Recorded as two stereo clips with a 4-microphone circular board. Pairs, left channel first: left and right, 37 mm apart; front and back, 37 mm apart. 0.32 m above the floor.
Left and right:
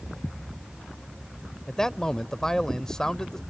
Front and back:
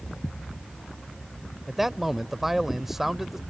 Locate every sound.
1.7 s a man speaking: 120° left